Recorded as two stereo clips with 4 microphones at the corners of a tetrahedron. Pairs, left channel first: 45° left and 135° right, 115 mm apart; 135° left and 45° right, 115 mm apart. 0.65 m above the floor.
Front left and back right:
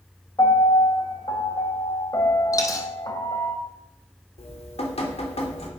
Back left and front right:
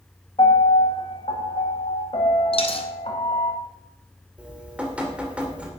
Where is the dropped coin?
105° left, 1.9 m.